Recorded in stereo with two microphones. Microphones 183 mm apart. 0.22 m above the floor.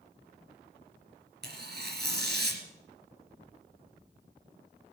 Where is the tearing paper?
60° right (ahead or behind), 3 m.